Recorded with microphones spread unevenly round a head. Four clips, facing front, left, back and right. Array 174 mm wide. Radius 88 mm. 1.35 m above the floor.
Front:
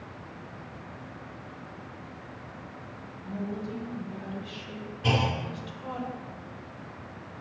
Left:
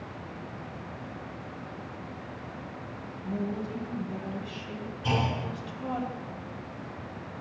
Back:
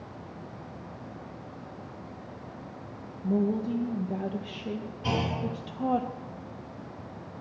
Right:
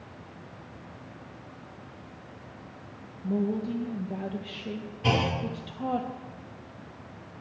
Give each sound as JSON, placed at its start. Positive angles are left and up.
{"t": 3.2, "sound": "a woman speaking", "azimuth_deg": -155, "distance_m": 1.2}
{"t": 5.0, "sound": "a clunk", "azimuth_deg": -65, "distance_m": 1.7}